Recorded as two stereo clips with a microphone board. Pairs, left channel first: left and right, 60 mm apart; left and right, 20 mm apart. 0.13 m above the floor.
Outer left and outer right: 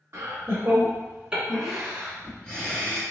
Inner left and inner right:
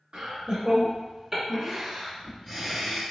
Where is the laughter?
40° right (ahead or behind), 1.4 m; by 3.0 s 25° left (ahead or behind), 1.4 m.